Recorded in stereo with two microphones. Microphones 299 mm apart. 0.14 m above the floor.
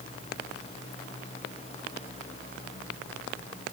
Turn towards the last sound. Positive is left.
No sound to turn to.